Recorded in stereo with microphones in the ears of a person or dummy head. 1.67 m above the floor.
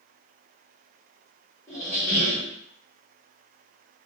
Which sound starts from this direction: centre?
A squeak, at 1.7 s.